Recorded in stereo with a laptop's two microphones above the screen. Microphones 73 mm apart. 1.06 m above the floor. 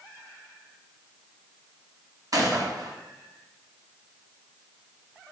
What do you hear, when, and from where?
2.3 s a gunshot: 55° right (ahead or behind), 0.7 m